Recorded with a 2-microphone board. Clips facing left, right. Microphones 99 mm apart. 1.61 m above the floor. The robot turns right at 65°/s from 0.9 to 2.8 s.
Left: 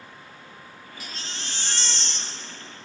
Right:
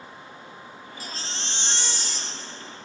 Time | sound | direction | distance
1.0 | a baby crying | 85° right | 1.0 m